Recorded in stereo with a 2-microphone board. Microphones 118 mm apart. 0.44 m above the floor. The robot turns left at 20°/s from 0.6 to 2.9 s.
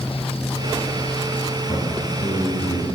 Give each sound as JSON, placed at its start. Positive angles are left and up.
{"t": 1.7, "sound": "a man speaking", "side_deg": 40, "distance_m": 3.5}